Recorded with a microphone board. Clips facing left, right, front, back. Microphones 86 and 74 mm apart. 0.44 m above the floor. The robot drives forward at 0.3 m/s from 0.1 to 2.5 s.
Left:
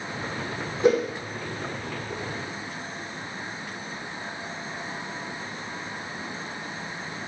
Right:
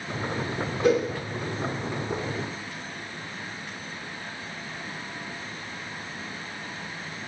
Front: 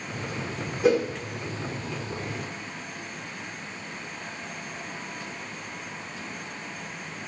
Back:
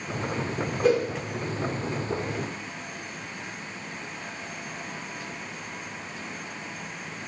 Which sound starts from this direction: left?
A whoosh, at 0.8 s.